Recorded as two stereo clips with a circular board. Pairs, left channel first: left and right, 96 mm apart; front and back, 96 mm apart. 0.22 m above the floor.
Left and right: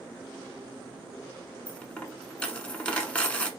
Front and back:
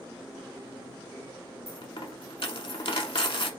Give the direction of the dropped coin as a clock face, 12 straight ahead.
12 o'clock.